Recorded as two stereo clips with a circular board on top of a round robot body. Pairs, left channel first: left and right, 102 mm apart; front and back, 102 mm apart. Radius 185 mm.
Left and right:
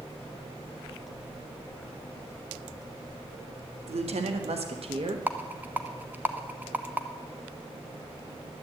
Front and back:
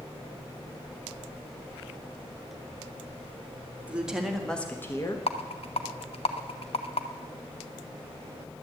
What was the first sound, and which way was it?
A woman speaking, 100° right.